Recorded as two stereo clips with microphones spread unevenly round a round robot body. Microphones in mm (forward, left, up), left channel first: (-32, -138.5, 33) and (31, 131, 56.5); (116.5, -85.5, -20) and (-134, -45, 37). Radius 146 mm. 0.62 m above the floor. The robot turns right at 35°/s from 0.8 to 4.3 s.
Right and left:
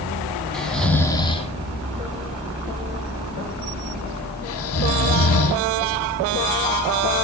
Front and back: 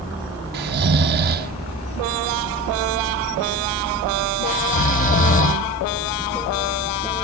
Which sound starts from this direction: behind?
Snoring, at 0.5 s.